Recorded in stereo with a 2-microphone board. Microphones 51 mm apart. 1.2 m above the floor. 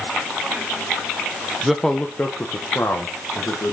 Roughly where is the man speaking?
Centre.